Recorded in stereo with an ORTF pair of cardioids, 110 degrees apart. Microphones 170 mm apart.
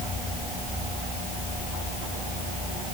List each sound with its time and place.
Only background noise.